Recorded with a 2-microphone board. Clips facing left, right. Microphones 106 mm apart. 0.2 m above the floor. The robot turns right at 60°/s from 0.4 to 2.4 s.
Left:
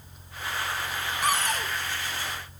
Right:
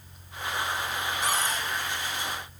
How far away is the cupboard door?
About 0.7 m.